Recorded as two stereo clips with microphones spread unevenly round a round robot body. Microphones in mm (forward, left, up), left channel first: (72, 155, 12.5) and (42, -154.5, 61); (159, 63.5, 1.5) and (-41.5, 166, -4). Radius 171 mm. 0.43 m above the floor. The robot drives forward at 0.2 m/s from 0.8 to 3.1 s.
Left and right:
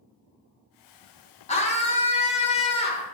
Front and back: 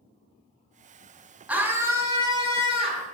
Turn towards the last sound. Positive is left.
turn(degrees=125)